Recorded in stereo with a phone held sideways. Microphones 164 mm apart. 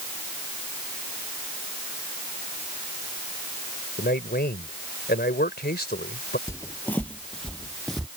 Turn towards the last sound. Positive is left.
turn(degrees=0)  # may be behind; listen again after turning